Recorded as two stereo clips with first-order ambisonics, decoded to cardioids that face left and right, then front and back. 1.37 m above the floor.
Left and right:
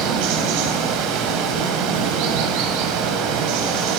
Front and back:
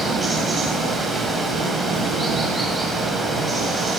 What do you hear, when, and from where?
0.0 s running water: 95° right, 3 m